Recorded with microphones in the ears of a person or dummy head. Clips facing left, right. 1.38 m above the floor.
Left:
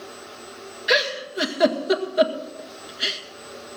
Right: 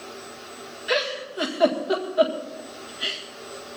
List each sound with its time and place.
0.9 s a giggle: 30° left (ahead or behind), 1.7 m